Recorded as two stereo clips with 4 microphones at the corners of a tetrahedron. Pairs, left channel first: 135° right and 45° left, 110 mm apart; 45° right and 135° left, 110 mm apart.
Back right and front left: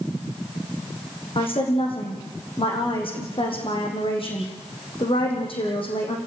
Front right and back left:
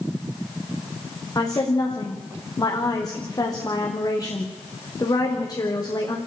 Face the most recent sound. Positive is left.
turn(degrees=-100)